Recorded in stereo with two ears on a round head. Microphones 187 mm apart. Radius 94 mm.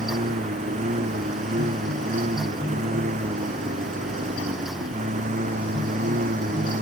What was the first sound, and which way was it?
A lawn mower, 35° right (ahead or behind).